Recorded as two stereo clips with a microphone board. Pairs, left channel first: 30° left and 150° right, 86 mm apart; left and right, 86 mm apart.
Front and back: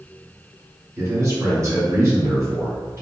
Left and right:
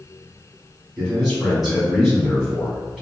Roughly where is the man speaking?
Behind.